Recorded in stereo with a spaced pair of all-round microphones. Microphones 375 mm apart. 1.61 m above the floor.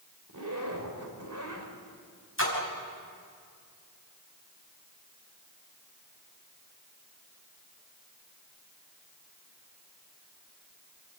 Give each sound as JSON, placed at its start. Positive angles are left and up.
{"t": 0.3, "sound": "a zipper", "side_deg": -50, "distance_m": 3.0}
{"t": 2.4, "sound": "a splash", "side_deg": 35, "distance_m": 5.5}